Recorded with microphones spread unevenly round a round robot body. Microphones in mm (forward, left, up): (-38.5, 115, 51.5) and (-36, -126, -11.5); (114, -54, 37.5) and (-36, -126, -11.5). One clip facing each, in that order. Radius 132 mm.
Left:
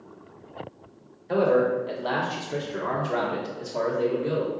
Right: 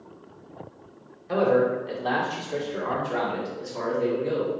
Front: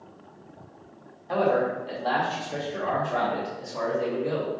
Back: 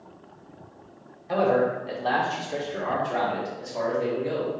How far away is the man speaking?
About 1.2 m.